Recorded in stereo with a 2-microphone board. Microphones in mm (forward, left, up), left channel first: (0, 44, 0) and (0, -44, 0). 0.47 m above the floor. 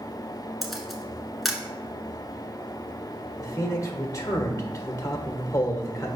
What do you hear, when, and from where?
0.6 s a camera shutter: centre (ahead or behind), 1.1 m
3.4 s a man speaking: 40° left (ahead or behind), 1.3 m